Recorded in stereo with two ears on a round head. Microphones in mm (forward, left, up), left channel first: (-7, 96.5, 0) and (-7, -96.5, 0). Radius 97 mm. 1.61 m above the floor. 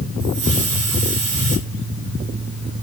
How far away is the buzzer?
No buzzer in this recording.